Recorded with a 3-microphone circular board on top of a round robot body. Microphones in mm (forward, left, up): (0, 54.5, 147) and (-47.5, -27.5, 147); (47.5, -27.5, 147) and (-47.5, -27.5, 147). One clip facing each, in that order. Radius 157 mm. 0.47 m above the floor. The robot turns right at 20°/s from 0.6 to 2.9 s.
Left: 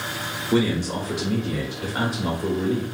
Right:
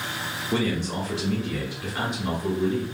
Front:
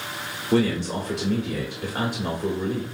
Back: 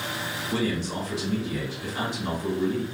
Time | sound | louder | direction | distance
0.5 | a man speaking | left 4 dB, front 6 dB | 20° right | 1.2 m